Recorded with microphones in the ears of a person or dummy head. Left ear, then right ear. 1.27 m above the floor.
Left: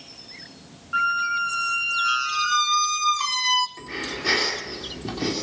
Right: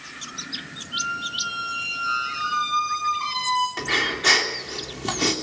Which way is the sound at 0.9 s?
60° left (ahead or behind).